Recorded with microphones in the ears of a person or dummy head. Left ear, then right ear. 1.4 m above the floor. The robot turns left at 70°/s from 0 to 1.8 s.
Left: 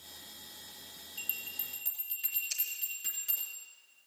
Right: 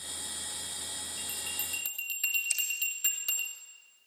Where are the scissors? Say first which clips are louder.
Right 6 dB; 25° right (ahead or behind), 1.8 m.